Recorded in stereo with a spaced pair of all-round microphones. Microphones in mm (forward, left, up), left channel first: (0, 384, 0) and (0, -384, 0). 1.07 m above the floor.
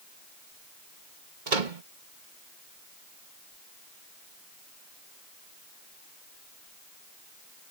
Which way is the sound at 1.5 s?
75° right (ahead or behind).